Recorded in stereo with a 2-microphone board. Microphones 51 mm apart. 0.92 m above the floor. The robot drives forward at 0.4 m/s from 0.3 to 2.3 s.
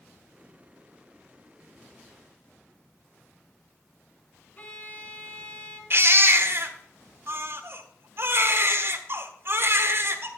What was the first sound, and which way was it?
A violin, 30° left (ahead or behind).